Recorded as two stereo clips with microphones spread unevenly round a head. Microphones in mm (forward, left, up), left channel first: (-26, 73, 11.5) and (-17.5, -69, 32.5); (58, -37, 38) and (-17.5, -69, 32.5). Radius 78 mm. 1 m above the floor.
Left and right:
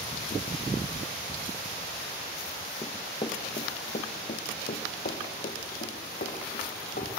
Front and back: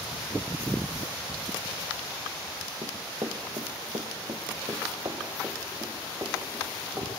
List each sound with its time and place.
2.8 s running footsteps: 165° left, 1.1 m; by 7.1 s 130° left, 4 m